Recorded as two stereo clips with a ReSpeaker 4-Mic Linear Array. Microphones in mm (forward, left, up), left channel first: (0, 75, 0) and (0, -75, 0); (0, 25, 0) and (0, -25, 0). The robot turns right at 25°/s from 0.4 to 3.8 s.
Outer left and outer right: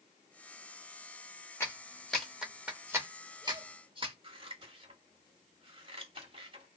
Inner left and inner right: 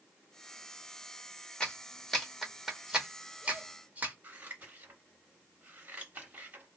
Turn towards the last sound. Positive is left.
turn(degrees=-35)  # may be behind; listen again after turning